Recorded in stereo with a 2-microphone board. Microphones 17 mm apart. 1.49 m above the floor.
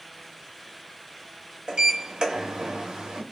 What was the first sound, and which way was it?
A sliding door, 60° right (ahead or behind).